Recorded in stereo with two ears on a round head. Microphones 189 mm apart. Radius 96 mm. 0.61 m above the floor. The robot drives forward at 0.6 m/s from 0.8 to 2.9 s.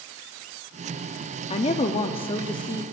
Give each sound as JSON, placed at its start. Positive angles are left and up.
{"t": 1.5, "sound": "a woman speaking", "side_deg": 25, "distance_m": 0.6}